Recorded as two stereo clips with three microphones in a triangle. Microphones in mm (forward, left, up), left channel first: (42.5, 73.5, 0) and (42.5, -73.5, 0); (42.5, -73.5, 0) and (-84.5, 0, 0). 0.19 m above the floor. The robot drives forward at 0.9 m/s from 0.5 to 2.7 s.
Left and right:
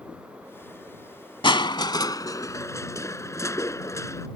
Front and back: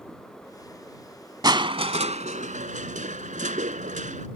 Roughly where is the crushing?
Left.